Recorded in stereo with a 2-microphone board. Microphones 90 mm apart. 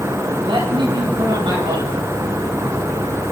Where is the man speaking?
65° right (ahead or behind), 9 m.